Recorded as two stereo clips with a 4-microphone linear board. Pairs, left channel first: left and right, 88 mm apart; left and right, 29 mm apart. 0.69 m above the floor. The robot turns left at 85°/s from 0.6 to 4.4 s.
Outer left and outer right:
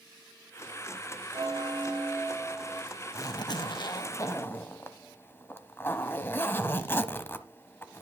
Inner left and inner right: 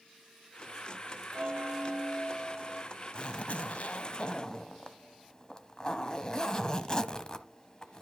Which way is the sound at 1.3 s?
75° right.